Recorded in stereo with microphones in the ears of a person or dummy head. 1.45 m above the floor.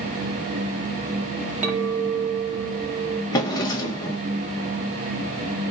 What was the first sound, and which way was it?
A clink, 10° right (ahead or behind).